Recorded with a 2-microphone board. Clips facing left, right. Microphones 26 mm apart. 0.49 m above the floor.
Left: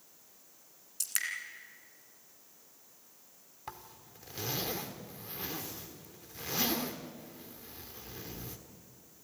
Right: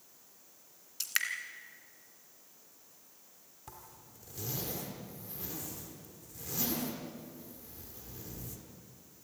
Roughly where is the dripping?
Right.